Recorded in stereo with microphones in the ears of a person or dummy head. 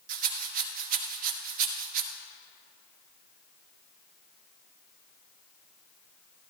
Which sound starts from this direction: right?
A rattle, at 0.1 s.